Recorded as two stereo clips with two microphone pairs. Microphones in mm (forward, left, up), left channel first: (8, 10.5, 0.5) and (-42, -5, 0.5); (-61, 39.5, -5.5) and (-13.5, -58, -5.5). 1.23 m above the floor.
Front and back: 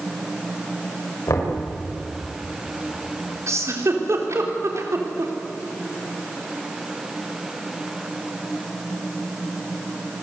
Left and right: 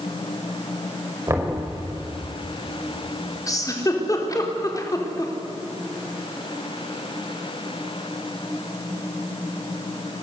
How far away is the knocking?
About 6 m.